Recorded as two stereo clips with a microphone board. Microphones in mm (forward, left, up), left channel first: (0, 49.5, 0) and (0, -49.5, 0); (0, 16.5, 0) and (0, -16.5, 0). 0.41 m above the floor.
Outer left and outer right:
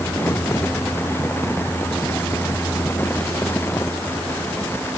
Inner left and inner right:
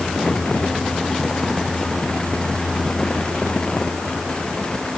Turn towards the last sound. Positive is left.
No sound to turn to.